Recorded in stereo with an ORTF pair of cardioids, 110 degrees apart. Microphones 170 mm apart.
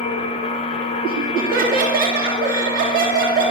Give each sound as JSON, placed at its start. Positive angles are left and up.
{"t": 0.0, "sound": "a machine running", "azimuth_deg": 30, "distance_m": 4.0}
{"t": 1.0, "sound": "laughter", "azimuth_deg": -60, "distance_m": 3.0}